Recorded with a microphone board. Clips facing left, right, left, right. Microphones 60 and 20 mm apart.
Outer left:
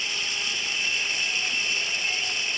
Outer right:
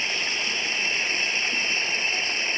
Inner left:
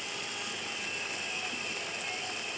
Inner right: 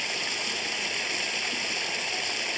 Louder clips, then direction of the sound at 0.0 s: Outer right 3 dB, inner right 8 dB; 40° right (ahead or behind).